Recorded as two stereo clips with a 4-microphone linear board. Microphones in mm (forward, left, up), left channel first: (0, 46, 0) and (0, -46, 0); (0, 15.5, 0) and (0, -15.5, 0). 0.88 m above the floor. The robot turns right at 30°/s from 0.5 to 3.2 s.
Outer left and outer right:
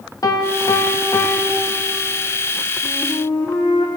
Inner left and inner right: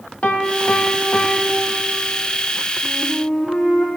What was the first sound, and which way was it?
A piano, 125° left.